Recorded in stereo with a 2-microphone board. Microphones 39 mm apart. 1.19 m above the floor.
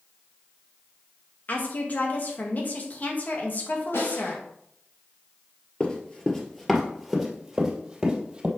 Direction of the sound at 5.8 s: 25° left (ahead or behind).